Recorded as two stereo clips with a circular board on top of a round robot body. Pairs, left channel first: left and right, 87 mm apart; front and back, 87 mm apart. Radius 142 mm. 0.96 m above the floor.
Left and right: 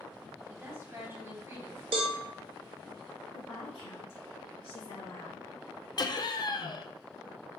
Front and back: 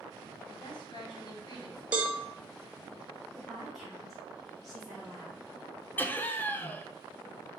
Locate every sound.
0.5 s a woman speaking: 30° right, 1.4 m
1.9 s a cowbell: 105° right, 0.8 m
3.3 s a woman speaking: 90° left, 1.5 m
6.0 s laughter: 65° left, 0.6 m